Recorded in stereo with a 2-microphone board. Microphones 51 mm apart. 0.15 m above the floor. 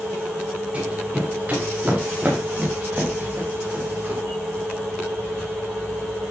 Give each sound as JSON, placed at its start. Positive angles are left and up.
{"t": 0.7, "sound": "running footsteps", "side_deg": -25, "distance_m": 8.5}